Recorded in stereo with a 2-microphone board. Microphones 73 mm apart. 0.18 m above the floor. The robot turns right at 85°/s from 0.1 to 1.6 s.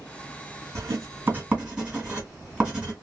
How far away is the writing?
About 2 m.